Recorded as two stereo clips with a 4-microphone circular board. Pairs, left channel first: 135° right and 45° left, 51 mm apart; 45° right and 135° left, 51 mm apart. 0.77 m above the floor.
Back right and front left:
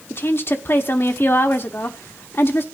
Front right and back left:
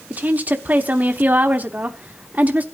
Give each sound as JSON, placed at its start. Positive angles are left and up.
{"t": 0.1, "sound": "a woman speaking", "azimuth_deg": -170, "distance_m": 1.0}